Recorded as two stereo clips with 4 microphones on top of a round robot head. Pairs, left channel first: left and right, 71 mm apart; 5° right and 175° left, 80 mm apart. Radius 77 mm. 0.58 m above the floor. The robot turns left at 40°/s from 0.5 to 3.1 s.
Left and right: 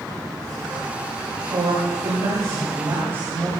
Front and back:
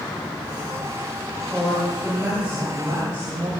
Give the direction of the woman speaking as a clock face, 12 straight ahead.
3 o'clock.